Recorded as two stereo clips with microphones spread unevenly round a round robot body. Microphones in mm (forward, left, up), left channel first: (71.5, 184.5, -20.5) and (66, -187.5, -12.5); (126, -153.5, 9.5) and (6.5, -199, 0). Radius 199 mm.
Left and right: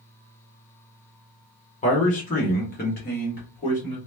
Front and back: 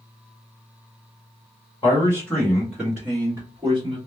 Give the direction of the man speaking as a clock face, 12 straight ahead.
10 o'clock.